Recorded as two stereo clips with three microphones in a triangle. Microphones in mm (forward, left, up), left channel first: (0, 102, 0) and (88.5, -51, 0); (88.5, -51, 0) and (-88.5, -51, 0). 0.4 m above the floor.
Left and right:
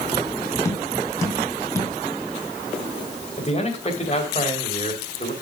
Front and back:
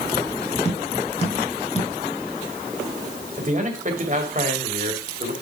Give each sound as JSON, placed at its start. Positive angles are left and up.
{"t": 0.7, "sound": "tapping", "azimuth_deg": 50, "distance_m": 2.0}
{"t": 3.4, "sound": "a man speaking", "azimuth_deg": 160, "distance_m": 2.5}